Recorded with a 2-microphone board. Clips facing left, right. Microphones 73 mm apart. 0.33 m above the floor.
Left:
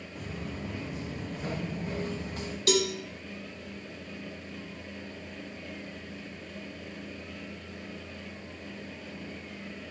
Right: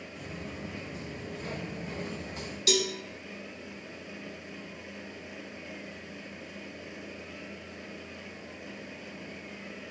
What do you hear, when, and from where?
0.1 s footsteps: 60° left (ahead or behind), 1.8 m; by 2.6 s 40° left (ahead or behind), 2.0 m
2.7 s a cowbell: 40° left (ahead or behind), 0.7 m